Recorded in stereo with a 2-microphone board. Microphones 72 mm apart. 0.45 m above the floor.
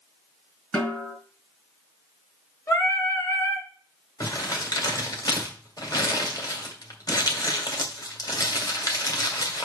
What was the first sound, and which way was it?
A snare drum, 20° left (ahead or behind).